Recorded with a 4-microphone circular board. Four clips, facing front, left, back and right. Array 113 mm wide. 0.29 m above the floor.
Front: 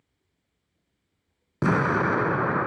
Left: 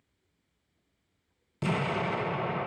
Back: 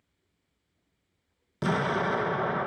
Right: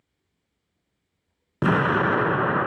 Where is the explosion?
60° right, 0.5 m.